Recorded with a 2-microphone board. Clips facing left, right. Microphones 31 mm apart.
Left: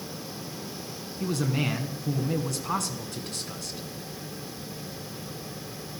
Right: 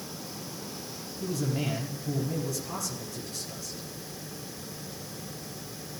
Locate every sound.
1.2 s a man speaking: 60° left (ahead or behind), 2.5 m